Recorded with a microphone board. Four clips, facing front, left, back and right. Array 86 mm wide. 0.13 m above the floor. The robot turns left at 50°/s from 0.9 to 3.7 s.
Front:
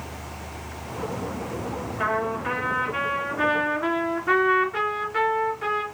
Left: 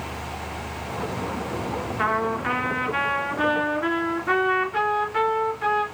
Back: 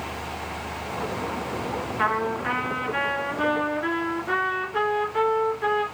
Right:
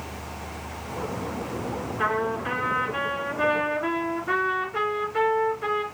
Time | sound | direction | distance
2.0 | a trumpet | 135° left | 2 m